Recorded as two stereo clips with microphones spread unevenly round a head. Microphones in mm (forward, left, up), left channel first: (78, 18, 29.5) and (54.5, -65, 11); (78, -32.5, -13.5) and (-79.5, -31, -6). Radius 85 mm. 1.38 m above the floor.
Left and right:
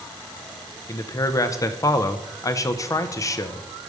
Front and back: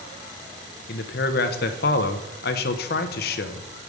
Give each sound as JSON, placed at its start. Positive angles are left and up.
{"t": 0.9, "sound": "a man speaking", "azimuth_deg": 30, "distance_m": 0.6}